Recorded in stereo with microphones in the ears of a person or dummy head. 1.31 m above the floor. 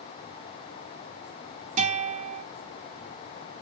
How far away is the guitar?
About 1.7 m.